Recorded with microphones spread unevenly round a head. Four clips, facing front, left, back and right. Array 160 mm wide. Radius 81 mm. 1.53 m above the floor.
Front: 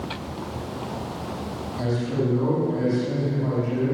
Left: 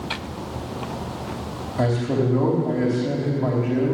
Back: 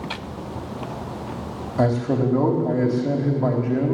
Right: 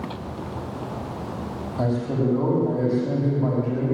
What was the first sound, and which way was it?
A man speaking, 165° left.